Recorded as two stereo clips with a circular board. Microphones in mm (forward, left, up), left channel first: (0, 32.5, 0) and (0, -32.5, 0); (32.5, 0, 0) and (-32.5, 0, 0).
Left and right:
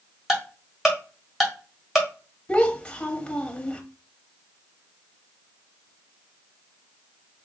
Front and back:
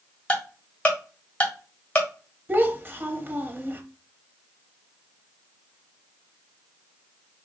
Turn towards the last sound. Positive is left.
turn(degrees=150)